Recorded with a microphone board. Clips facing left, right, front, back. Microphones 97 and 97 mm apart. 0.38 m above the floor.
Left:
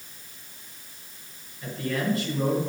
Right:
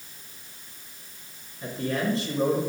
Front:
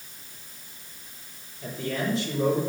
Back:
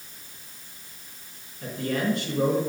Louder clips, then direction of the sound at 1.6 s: Right 1 dB, back 3 dB; 155° right.